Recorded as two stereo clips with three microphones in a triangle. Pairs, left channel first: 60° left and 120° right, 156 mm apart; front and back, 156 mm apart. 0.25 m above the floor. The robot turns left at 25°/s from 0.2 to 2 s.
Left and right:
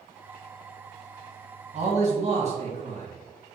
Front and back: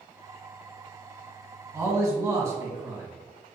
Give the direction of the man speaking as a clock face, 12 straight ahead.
4 o'clock.